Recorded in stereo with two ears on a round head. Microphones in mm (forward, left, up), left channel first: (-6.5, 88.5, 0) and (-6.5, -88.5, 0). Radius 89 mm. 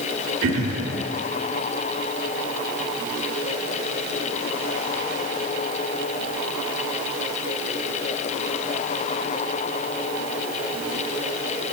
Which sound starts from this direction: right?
Throat clearing, at 0.4 s.